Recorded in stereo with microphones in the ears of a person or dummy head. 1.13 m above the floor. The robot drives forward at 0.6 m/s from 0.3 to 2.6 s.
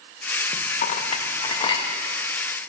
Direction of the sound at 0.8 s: 40° left (ahead or behind).